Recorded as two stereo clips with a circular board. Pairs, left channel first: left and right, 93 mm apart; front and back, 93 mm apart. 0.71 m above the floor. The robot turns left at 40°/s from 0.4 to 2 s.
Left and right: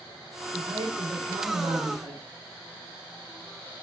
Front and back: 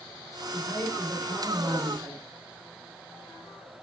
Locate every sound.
0.5 s a man speaking: 65° right, 2.5 m; by 2.2 s 125° right, 2.5 m